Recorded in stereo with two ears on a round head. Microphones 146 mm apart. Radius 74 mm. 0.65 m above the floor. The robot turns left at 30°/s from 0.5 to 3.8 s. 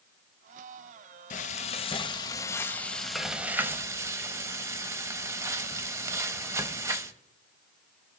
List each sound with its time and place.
1.3 s frying: 55° left, 0.7 m; by 7.1 s 20° right, 0.7 m